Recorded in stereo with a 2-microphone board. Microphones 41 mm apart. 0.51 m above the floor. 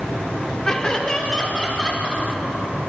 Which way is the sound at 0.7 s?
20° left (ahead or behind).